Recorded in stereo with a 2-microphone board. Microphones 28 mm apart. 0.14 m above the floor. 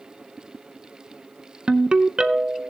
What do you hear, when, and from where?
1.7 s a ringtone: 35° right (ahead or behind), 0.6 m